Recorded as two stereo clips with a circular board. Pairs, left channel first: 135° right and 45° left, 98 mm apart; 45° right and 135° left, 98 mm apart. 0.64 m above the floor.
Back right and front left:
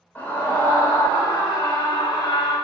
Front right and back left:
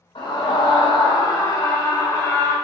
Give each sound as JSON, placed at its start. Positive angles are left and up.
{"t": 0.1, "sound": "a scream", "azimuth_deg": -65, "distance_m": 2.5}